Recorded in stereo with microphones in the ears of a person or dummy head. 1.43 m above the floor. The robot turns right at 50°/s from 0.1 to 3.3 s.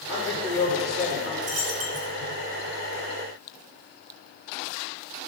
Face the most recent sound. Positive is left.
turn(degrees=5)